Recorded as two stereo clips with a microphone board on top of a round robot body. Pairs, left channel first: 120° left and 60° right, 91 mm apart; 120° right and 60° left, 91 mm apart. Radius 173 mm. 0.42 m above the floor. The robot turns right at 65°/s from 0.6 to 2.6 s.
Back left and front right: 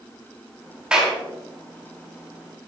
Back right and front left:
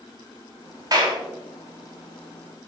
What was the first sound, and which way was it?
A clap, 20° left.